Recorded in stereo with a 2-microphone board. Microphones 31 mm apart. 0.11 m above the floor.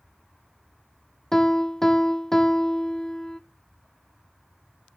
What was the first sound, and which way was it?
A piano, 15° left (ahead or behind).